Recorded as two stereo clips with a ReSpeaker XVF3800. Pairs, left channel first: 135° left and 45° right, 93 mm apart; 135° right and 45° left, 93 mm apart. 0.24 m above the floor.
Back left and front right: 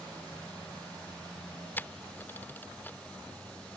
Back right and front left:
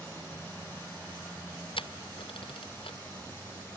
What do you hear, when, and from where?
1.8 s a camera shutter: 155° right